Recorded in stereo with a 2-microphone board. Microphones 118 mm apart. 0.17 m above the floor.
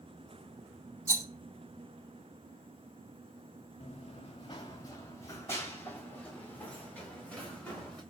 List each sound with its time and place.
1.1 s a rattle: 25° right (ahead or behind), 0.9 m
3.8 s running footsteps: 65° left (ahead or behind), 0.7 m; by 8.0 s 10° left (ahead or behind), 3 m